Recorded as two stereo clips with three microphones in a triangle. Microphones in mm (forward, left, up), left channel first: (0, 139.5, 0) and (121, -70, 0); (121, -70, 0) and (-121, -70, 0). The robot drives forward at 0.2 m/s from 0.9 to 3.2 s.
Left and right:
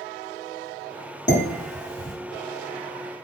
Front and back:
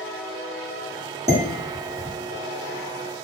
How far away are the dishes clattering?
About 1.0 m.